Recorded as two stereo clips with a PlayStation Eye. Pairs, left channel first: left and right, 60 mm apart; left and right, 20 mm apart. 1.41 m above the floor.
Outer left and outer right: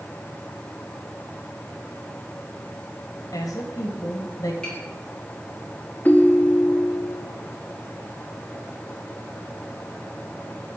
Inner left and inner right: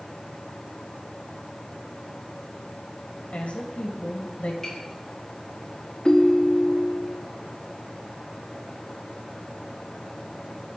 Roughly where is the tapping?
Centre.